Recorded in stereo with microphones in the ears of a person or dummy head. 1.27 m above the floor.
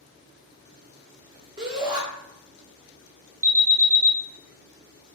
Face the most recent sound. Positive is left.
turn(degrees=-10)  # may be behind; listen again after turning